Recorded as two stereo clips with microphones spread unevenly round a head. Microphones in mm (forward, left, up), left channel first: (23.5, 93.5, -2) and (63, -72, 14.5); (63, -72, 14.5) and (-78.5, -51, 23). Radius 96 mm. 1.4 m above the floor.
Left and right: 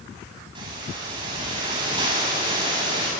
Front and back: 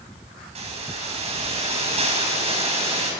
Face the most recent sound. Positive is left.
turn(degrees=-145)